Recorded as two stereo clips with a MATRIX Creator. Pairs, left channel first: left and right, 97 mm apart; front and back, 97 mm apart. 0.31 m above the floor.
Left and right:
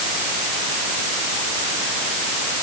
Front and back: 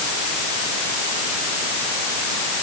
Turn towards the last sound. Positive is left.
No sound to turn to.